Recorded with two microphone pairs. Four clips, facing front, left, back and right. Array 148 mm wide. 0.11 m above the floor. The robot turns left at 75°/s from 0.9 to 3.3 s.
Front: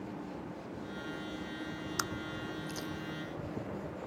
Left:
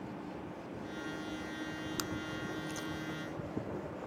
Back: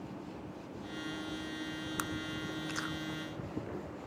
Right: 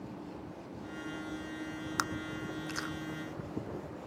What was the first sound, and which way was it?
Chewing, 80° right.